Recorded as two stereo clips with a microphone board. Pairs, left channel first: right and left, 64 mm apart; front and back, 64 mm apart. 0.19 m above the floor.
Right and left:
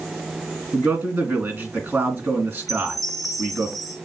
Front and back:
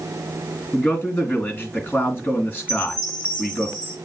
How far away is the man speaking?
About 2 m.